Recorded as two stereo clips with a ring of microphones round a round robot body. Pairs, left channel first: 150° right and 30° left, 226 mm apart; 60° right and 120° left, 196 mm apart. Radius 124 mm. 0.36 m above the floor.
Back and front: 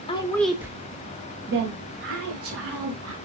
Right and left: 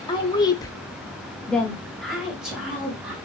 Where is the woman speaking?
105° right, 1.0 m; by 3.1 s 35° left, 2.5 m.